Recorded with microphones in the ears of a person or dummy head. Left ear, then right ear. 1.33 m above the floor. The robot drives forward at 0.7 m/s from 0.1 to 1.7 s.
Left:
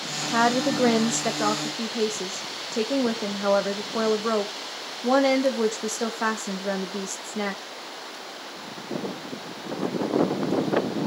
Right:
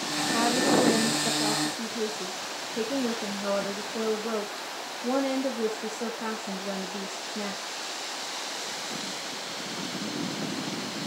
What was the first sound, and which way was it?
A woman speaking, 70° left (ahead or behind).